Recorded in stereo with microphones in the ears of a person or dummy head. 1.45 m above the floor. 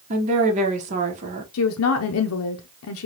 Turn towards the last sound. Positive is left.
turn(degrees=80)